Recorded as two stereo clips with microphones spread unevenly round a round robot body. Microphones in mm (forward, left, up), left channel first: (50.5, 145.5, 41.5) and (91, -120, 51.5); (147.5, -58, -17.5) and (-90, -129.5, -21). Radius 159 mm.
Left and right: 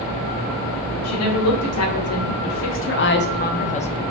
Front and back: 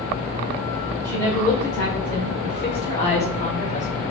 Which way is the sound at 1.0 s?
100° left.